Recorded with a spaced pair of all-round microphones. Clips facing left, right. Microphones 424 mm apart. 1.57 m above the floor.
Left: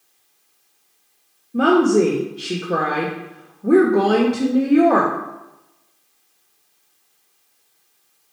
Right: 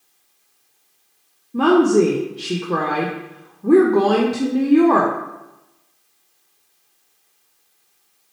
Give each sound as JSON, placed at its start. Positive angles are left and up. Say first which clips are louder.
{"t": 1.5, "sound": "a woman speaking", "louder": "right 1 dB", "side_deg": -10, "distance_m": 0.8}